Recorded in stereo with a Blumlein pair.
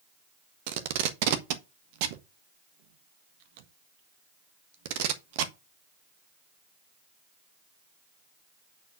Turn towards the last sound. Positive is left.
turn(degrees=-50)